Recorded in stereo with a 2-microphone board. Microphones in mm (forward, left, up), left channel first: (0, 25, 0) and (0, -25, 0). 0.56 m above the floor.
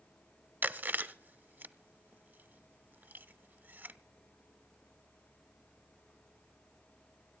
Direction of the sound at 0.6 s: 45° right (ahead or behind).